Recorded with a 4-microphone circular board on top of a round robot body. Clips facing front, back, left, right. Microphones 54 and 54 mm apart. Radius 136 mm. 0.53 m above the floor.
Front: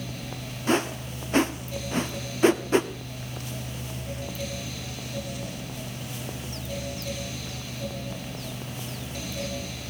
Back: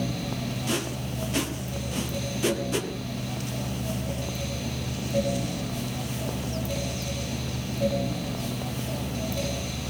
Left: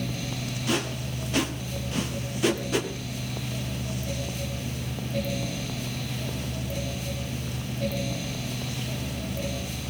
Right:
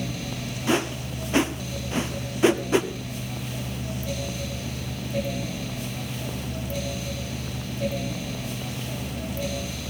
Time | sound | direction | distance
0.7 | a whoosh | 40° right | 1.8 m